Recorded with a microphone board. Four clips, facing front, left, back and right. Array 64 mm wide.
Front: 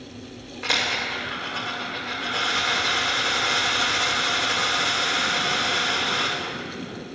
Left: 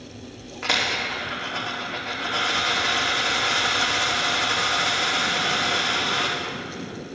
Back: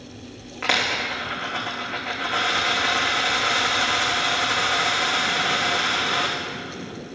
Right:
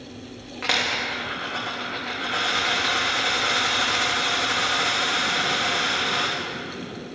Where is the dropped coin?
145° right, 3 m.